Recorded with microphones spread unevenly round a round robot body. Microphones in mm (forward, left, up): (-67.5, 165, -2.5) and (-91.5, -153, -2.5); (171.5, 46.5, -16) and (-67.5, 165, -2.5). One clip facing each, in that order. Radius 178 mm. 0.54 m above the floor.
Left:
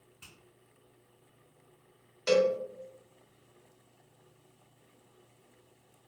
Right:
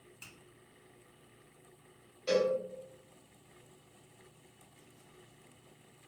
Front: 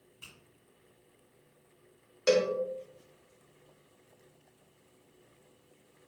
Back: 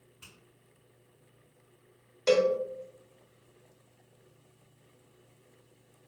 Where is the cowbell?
50° left, 0.9 m.